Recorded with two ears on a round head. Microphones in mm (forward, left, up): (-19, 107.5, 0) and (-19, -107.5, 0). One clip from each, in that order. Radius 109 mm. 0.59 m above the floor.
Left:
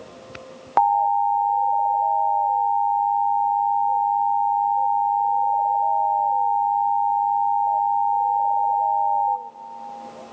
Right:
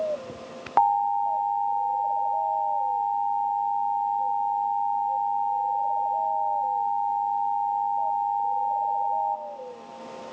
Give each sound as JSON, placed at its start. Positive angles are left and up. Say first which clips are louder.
{"t": 0.8, "sound": "an alarm", "louder": "left 4 dB", "side_deg": 5, "distance_m": 0.8}